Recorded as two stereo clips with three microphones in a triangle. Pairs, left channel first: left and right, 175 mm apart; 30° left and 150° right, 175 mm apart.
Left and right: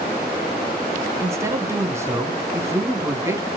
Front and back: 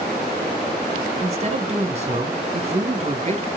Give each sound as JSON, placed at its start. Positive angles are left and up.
{"t": 1.2, "sound": "a man speaking", "azimuth_deg": -155, "distance_m": 1.6}